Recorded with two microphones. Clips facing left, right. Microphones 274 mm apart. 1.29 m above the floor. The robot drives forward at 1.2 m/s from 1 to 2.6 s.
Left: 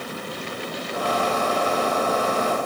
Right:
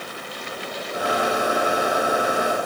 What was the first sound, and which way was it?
Only background noise.